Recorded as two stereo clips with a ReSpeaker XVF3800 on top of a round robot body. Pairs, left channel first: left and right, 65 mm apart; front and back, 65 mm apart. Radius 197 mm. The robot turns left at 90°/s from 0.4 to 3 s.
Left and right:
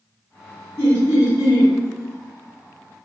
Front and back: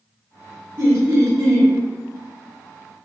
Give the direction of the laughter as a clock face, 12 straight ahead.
7 o'clock.